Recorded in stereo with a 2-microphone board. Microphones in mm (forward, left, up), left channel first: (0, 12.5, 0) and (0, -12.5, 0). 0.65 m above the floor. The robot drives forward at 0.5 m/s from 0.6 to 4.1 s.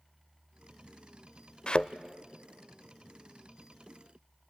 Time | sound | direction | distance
1.7 | a thud | 40° left (ahead or behind) | 0.6 m